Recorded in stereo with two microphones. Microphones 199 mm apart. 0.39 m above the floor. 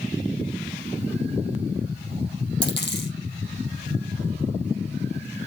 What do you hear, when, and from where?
2.6 s a dropped coin: 60° left (ahead or behind), 4.5 m